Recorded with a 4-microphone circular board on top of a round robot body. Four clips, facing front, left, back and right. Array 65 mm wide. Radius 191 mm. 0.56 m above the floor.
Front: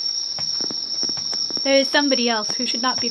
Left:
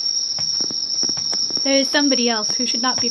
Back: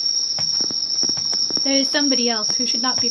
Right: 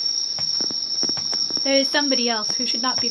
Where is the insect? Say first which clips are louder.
Left 2 dB, back 3 dB; 30° right, 1.8 m.